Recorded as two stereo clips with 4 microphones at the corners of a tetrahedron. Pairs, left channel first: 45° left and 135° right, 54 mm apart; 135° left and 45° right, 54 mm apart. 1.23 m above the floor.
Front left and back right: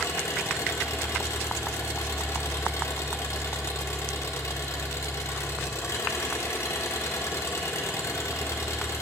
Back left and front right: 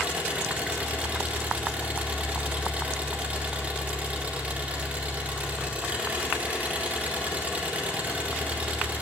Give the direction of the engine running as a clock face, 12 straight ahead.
11 o'clock.